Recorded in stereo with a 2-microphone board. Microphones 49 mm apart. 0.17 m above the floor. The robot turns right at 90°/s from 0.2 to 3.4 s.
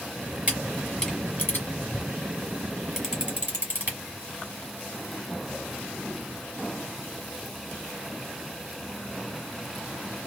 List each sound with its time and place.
0.5 s a camera shutter: 30° right (ahead or behind), 3 m; by 4.0 s 40° right (ahead or behind), 3 m